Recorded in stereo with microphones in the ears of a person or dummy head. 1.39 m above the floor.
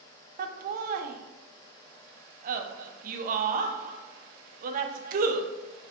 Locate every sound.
0.4 s laughter: 50° right (ahead or behind), 0.5 m